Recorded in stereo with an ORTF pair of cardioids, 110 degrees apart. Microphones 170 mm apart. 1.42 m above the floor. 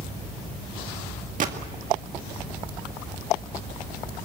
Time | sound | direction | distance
1.4 | a gunshot | 50° right | 2 m